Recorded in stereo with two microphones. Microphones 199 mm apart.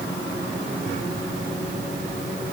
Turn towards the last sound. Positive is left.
No sound to turn to.